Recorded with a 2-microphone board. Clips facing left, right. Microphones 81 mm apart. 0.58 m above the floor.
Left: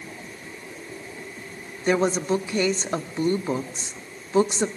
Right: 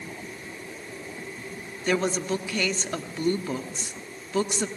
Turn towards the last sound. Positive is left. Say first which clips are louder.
# left 4 dB
turn(degrees=25)  # may be behind; listen again after turning